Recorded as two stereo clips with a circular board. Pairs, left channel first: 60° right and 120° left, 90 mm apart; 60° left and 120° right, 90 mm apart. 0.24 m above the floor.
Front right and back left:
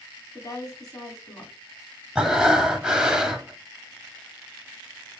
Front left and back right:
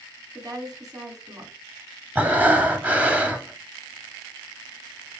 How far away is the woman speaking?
About 1.6 m.